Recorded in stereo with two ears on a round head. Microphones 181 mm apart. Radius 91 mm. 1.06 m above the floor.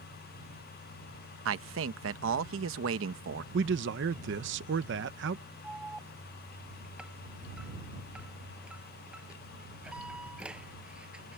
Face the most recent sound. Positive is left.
turn(degrees=-5)  # may be behind; listen again after turning